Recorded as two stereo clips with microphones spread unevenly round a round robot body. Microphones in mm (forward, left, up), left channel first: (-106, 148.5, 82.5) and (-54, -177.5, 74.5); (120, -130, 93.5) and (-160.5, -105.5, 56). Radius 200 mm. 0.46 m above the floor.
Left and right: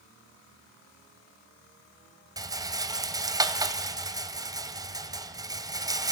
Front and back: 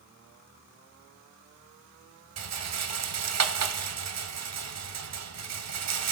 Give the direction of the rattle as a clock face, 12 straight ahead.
5 o'clock.